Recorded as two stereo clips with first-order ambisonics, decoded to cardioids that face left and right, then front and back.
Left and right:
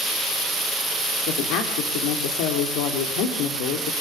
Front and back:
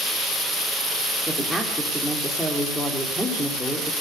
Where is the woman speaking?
90° left, 3.5 m.